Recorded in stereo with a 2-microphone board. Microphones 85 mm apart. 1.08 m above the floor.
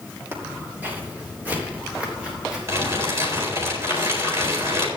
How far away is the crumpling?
About 4 m.